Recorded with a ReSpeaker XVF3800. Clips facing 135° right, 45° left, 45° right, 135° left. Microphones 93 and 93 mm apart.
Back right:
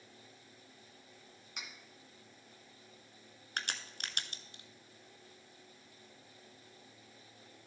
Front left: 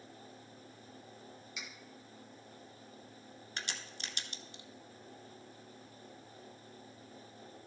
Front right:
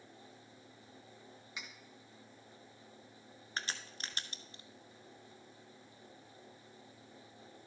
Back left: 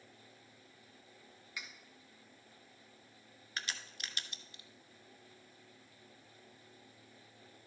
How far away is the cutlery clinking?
About 1.5 m.